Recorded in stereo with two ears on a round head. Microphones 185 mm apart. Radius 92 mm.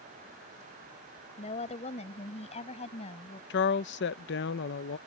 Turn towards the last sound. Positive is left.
turn(degrees=55)  # may be behind; listen again after turning